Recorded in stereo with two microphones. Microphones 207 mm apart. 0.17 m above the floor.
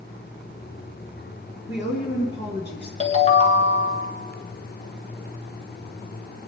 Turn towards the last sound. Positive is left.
turn(degrees=35)  # may be behind; listen again after turning